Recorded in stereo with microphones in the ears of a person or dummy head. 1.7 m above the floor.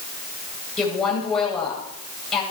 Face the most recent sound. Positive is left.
turn(degrees=5)  # may be behind; listen again after turning